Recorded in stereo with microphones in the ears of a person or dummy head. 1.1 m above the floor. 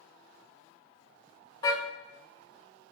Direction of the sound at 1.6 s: 30° left (ahead or behind).